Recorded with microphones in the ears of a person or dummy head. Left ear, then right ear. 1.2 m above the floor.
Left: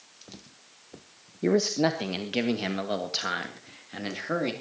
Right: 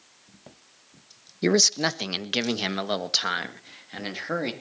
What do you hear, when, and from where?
1.4 s a man speaking: 70° right (ahead or behind), 1.1 m; by 4.5 s 20° right (ahead or behind), 2.5 m